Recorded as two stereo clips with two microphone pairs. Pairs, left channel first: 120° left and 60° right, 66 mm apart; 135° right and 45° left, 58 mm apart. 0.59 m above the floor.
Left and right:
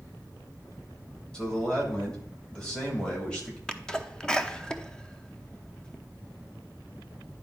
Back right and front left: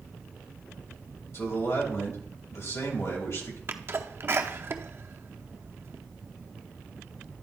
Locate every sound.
1.3 s a man speaking: 165° right, 3 m
3.7 s a sneeze: 50° left, 0.7 m